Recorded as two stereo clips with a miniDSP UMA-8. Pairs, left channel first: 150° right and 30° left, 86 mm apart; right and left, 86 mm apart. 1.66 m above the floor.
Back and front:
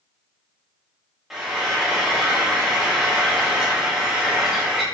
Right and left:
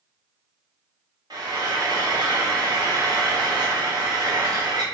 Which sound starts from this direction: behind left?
Frying, at 1.3 s.